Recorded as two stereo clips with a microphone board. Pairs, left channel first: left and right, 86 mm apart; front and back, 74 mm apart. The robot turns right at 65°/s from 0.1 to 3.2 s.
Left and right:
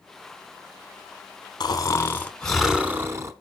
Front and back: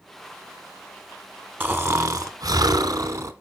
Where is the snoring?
120° left, 1.2 m; by 3.3 s 140° right, 1.2 m.